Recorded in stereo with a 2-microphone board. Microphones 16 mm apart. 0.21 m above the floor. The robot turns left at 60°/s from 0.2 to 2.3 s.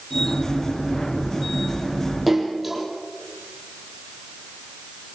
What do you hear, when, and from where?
2.3 s a splash: 5° left (ahead or behind), 5 m